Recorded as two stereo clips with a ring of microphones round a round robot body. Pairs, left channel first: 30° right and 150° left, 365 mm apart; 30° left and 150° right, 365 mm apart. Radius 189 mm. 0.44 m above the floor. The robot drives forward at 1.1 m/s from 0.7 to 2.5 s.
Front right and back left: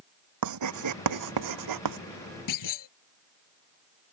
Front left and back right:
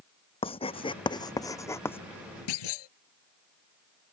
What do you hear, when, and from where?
0.4 s writing: 105° left; by 2.0 s 115° left
2.5 s a clunk: 10° left